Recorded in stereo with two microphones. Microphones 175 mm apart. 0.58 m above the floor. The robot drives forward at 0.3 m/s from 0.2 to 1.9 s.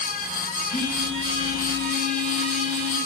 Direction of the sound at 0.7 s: 55° left (ahead or behind).